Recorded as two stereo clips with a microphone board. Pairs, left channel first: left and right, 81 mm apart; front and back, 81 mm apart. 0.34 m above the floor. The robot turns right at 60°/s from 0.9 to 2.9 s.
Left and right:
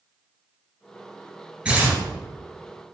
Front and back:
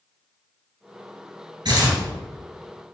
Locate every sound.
1.6 s tearing paper: 165° right, 3 m; by 2.0 s 145° right, 3 m